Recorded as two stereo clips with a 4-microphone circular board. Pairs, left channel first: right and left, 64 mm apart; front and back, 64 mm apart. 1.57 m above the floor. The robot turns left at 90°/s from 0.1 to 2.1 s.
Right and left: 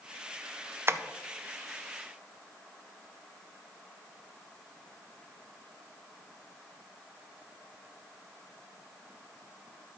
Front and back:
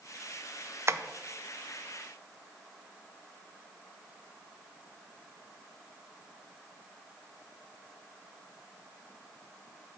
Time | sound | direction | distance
0.9 | tapping | 140° left | 0.6 m